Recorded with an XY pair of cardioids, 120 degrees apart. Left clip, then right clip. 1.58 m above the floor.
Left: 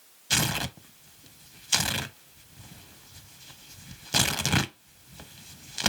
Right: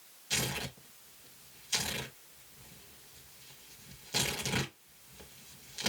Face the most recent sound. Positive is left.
turn(degrees=60)